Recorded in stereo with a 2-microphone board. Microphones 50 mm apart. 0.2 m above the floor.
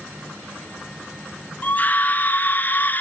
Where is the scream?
35° left (ahead or behind), 2 m; by 3.0 s 40° left (ahead or behind), 1.2 m.